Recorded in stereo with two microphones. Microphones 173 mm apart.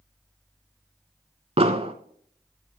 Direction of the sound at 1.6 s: 35° right (ahead or behind).